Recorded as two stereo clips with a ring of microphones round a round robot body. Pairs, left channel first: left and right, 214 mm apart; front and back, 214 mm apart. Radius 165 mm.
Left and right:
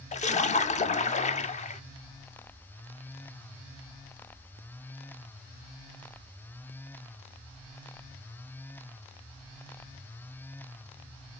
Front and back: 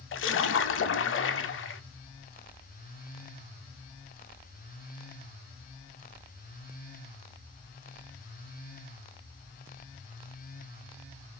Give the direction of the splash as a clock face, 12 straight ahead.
11 o'clock.